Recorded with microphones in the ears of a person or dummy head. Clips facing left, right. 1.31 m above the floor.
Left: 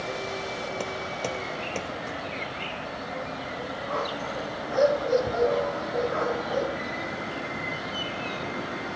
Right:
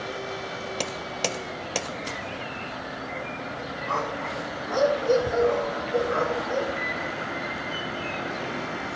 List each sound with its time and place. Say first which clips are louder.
3.9 s a dog barking: right 1 dB; 65° right (ahead or behind), 3 m; by 6.7 s 55° right (ahead or behind), 4.5 m
6.8 s a microwave: right 1 dB; 75° right (ahead or behind), 5 m